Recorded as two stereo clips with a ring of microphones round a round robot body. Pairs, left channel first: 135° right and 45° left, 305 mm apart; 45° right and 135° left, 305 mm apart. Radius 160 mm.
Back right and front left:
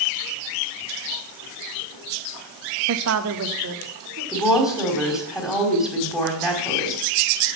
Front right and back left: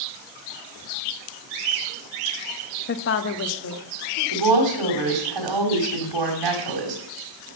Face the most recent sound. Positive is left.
turn(degrees=135)